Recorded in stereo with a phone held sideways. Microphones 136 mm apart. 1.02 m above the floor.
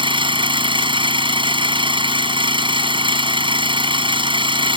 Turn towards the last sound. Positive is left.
turn(degrees=-40)  # may be behind; listen again after turning